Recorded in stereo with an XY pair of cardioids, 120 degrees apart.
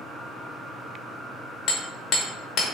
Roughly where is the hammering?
Ahead left.